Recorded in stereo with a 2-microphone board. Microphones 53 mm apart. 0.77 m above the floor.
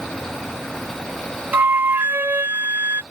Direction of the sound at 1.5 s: 40° right (ahead or behind).